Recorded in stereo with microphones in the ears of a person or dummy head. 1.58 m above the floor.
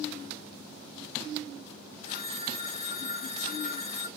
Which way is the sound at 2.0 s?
40° left (ahead or behind).